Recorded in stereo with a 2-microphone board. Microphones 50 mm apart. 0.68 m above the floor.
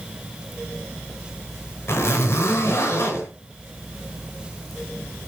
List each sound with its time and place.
1.9 s a zipper: 55° left (ahead or behind), 4.5 m